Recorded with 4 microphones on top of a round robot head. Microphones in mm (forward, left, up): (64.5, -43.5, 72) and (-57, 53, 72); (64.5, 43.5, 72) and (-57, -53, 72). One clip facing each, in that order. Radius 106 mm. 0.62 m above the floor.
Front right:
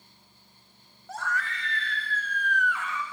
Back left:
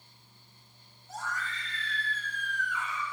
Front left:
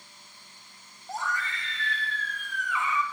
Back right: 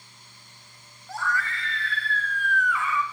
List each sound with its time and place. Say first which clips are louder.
1.1 s a scream: front right 5 dB, back right 3 dB; 30° right, 2.5 m